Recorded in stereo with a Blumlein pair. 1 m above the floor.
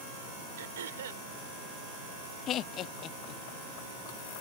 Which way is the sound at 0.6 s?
60° right.